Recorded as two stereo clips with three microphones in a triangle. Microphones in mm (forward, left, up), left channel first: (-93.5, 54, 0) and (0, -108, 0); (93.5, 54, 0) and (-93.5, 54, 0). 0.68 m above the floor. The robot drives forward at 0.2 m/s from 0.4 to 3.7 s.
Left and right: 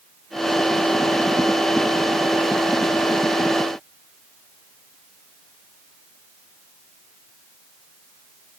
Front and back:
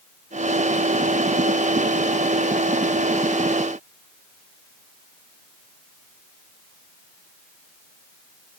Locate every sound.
Only background noise.